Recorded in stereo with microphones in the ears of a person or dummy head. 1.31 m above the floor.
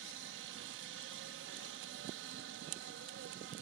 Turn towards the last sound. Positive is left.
turn(degrees=-60)  # may be behind; listen again after turning